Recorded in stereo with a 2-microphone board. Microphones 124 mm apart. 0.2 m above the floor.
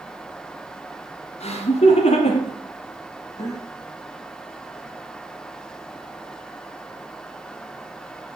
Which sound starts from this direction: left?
Laughter, at 1.4 s.